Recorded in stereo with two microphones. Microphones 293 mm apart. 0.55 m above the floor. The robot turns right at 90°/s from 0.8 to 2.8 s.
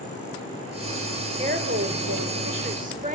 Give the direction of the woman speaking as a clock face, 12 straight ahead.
5 o'clock.